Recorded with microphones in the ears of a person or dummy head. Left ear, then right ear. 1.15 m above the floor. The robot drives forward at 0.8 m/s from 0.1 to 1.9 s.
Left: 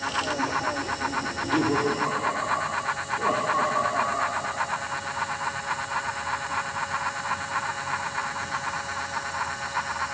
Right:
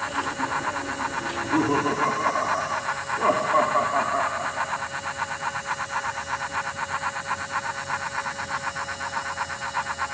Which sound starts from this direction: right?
Laughter, at 1.3 s.